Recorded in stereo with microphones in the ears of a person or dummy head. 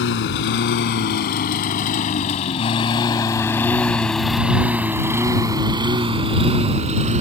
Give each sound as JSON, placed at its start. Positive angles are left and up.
{"t": 0.0, "sound": "a lawn mower", "side_deg": 65}